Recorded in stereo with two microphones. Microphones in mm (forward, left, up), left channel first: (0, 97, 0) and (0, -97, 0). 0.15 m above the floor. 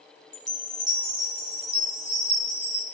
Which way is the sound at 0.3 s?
70° left (ahead or behind).